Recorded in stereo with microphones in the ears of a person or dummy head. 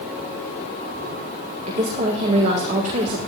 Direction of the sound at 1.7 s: 35° right (ahead or behind).